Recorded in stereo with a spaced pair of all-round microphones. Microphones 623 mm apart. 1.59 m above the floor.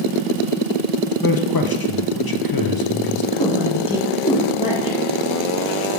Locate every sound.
1.2 s a man speaking: 40° left (ahead or behind), 0.6 m
3.3 s a woman speaking: 10° left (ahead or behind), 1.9 m